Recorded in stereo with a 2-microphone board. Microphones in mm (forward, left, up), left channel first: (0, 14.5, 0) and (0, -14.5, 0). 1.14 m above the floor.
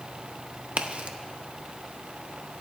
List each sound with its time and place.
0.8 s a crack: 45° right (ahead or behind), 0.7 m